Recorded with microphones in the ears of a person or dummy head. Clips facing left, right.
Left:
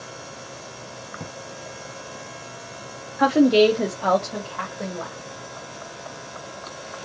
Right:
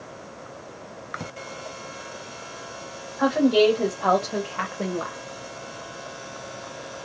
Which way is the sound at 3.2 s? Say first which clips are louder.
Left 3 dB; 35° left (ahead or behind).